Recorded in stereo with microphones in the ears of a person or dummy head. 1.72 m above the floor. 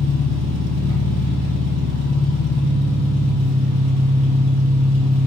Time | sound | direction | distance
0.0 | an engine running | 70° right (ahead or behind) | 0.8 m